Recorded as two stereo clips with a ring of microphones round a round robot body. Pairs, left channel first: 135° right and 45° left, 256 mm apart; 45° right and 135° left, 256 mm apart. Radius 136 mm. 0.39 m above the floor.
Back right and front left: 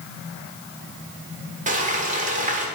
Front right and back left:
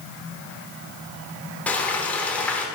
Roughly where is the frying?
Ahead left.